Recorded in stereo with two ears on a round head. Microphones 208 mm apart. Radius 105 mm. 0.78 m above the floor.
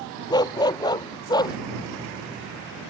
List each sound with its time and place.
0.3 s a dog barking: 20° left (ahead or behind)